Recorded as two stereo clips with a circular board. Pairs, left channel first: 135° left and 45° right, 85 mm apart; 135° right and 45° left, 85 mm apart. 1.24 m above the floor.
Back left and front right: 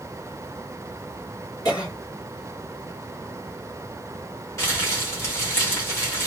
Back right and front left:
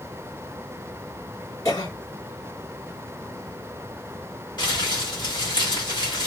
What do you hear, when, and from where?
1.6 s a cough: straight behind, 3.5 m
4.6 s crumpling: 170° right, 2 m